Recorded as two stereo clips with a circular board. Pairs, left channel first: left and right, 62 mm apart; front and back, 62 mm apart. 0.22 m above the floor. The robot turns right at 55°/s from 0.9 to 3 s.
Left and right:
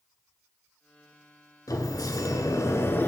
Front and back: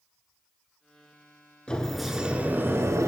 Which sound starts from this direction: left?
A sliding door, at 1.7 s.